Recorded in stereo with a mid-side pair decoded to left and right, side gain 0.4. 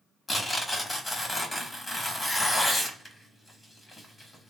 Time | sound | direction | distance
0.3 | tearing paper | 15° left | 1.2 m